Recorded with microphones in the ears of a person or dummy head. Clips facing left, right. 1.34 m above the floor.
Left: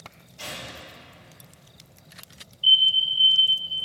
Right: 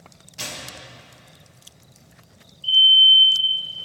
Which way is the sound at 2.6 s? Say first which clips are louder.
Right 6 dB; 45° left (ahead or behind).